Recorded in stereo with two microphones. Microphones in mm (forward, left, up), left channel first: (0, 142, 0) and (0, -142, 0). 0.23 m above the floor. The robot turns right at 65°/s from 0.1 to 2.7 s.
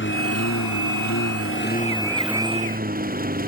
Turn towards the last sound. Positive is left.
turn(degrees=-150)